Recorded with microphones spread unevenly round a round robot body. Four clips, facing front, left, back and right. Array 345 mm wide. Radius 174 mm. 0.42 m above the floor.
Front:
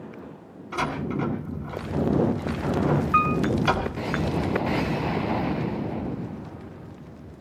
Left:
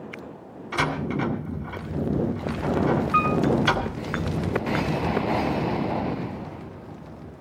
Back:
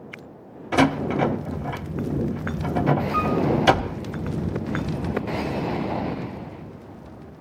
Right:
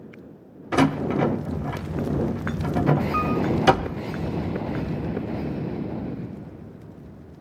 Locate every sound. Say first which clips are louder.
0.7 s a door slam: right 5 dB, back 8 dB; 140° right, 1.3 m
3.1 s a piano: left 2 dB, front 1 dB; 25° left, 6.5 m